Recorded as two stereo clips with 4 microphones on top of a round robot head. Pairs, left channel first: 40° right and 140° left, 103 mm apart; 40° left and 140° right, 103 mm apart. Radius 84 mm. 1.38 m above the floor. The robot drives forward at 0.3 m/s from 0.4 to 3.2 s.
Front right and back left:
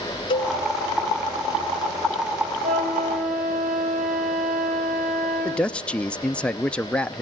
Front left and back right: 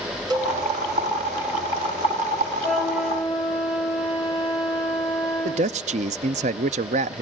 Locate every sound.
0.3 s a cowbell: 85° right, 3.5 m
2.6 s a flute: 130° left, 2.5 m; by 5.8 s 135° left, 2.5 m
5.5 s a man speaking: 125° right, 0.5 m